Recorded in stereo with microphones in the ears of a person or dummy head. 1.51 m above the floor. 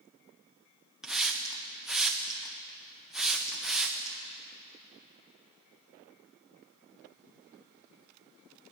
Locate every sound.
1.0 s a hiss: centre (ahead or behind), 0.8 m